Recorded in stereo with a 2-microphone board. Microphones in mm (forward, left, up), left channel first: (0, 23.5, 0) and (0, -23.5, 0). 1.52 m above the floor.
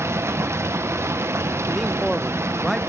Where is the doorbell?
I don't hear a doorbell.